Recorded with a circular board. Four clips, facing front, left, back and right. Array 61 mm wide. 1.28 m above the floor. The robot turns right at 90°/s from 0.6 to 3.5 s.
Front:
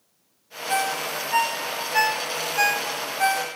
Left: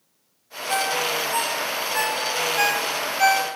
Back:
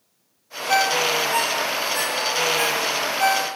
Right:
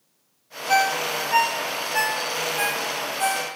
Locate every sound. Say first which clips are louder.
0.7 s a ringtone: right 3 dB, back 6 dB; 130° right, 0.6 m; by 3.5 s 115° left, 0.6 m